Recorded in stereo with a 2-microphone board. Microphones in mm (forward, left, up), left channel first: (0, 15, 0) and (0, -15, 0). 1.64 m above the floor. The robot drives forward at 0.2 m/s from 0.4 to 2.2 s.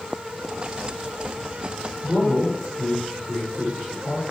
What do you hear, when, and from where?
2.0 s a man speaking: 75° left (ahead or behind), 5 m